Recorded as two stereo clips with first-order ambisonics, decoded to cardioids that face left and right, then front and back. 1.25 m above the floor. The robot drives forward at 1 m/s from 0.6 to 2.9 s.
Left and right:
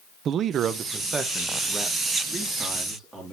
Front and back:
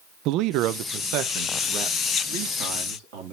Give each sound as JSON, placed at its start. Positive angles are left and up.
{"t": 0.2, "sound": "a man speaking", "azimuth_deg": -145, "distance_m": 0.7}